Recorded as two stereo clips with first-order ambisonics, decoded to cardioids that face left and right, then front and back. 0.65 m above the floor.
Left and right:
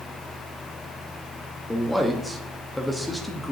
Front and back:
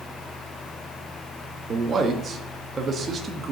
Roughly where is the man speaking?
Behind.